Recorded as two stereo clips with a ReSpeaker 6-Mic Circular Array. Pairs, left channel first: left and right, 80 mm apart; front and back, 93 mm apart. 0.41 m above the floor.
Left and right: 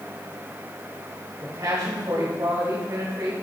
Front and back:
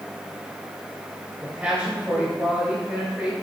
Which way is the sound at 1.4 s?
110° right.